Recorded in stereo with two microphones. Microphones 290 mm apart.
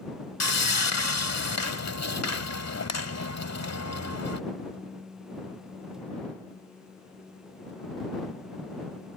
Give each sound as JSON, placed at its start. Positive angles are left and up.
{"t": 0.4, "sound": "sawing", "side_deg": 60}